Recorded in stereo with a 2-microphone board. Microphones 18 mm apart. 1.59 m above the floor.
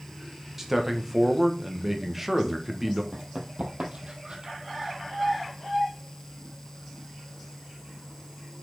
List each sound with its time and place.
0.6 s a man speaking: 10° right (ahead or behind), 1.4 m
3.1 s running footsteps: 50° right (ahead or behind), 3 m; by 4.5 s 55° right (ahead or behind), 3 m